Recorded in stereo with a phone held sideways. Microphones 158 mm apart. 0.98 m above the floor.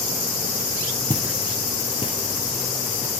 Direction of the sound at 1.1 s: 15° right (ahead or behind).